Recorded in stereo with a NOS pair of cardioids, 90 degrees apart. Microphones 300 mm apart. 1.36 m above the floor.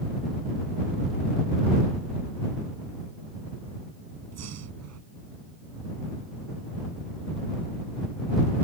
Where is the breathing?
60° right.